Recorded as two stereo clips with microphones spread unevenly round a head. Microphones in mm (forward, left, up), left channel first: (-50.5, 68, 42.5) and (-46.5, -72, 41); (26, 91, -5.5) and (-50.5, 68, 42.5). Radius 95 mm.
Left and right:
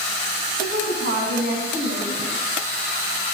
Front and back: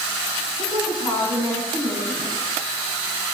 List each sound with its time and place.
0.6 s a woman speaking: 95° right, 10 m; by 2.4 s 90° right, 9 m